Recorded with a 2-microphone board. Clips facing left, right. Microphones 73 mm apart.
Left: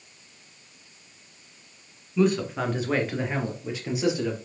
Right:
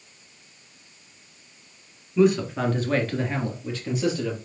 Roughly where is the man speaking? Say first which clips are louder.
Right 3 dB; centre.